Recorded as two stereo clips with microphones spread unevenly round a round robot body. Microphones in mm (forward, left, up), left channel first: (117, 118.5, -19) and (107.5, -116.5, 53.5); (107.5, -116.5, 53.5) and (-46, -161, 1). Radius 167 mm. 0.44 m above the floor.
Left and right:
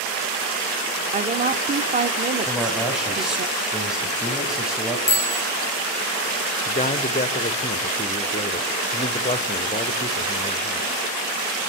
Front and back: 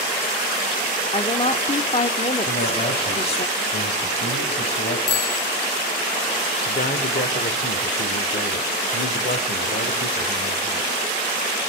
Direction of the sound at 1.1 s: 30° right.